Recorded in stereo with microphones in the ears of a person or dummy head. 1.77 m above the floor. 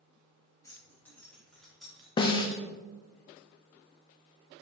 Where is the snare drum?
25° left (ahead or behind), 0.5 m.